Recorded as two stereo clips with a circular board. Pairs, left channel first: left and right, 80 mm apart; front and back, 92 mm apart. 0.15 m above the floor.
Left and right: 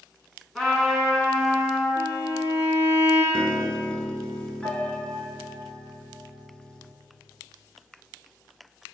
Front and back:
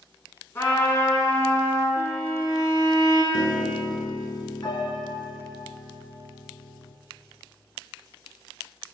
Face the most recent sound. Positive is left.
turn(degrees=15)